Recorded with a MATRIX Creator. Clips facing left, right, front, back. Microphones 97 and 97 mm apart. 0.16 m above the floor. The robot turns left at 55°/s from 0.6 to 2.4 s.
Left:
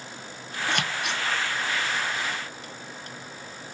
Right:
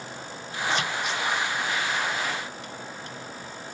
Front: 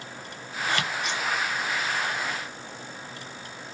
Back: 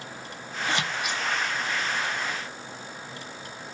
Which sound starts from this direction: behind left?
Scissors, at 0.7 s.